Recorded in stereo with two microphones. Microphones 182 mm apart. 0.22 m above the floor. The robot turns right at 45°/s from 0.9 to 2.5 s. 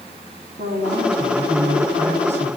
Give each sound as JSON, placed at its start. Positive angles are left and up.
{"t": 0.6, "sound": "a woman speaking", "azimuth_deg": -80, "distance_m": 7.5}